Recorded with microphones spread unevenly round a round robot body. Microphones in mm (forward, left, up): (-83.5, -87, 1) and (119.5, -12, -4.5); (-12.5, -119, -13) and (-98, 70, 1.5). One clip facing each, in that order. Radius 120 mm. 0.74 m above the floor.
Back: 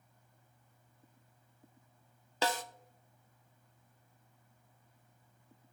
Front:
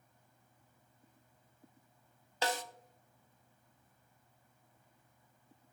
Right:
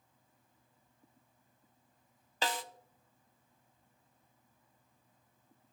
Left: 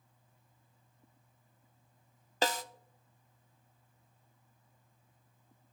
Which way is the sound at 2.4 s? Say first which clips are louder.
Back 2 dB, left 4 dB; 165° left.